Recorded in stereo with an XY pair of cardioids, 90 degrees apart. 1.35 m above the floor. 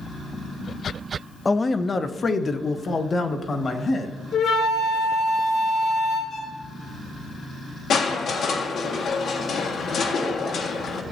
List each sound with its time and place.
1.4 s a man speaking: 25° left, 0.6 m; by 4.1 s 45° left, 1.9 m
4.3 s a flute: 65° left, 4.5 m
6.3 s a violin: 60° left, 3 m
7.9 s crushing: 65° left, 1.6 m